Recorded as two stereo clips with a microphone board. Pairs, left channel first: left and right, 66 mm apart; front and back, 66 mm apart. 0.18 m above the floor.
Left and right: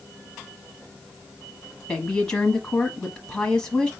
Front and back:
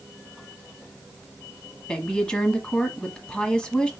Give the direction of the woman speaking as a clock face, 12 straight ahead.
10 o'clock.